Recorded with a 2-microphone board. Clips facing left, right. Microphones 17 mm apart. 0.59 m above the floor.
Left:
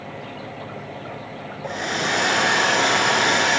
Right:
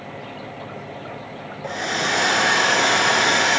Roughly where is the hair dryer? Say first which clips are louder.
Right 1 dB; centre.